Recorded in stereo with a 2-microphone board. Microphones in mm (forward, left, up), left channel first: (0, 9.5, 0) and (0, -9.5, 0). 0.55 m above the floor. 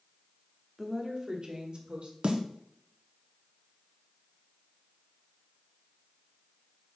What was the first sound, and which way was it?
A woman speaking, 5° right (ahead or behind).